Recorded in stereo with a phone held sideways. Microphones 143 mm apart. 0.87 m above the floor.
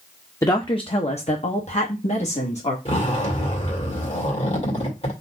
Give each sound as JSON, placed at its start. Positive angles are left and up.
{"t": 0.4, "sound": "a woman speaking", "side_deg": 25, "distance_m": 0.6}
{"t": 2.9, "sound": "a zipper", "side_deg": 50, "distance_m": 1.9}